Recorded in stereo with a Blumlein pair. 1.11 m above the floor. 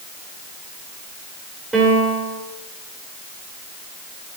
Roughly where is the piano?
Ahead.